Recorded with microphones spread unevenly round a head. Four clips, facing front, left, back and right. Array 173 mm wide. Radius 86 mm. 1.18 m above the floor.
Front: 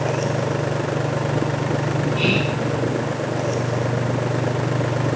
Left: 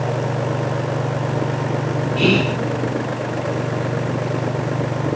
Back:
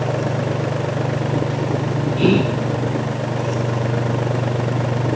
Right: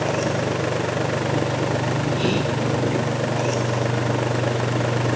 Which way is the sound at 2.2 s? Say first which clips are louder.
Left 4 dB, back 5 dB; 150° left.